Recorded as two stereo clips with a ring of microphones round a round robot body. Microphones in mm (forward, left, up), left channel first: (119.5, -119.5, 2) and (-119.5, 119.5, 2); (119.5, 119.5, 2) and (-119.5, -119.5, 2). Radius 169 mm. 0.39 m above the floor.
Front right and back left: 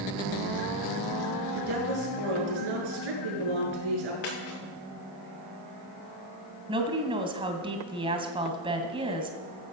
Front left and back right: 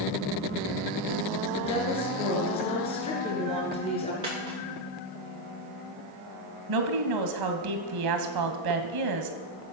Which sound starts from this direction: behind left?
A woman speaking, at 1.6 s.